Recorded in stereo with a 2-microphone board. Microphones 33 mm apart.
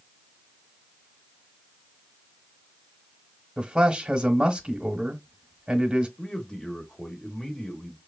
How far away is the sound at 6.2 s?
About 1.1 m.